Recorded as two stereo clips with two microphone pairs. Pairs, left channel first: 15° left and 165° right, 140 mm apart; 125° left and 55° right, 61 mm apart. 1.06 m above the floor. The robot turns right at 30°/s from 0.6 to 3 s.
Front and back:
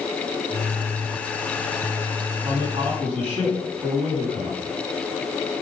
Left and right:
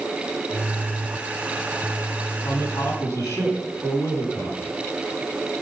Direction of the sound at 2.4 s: 130° left.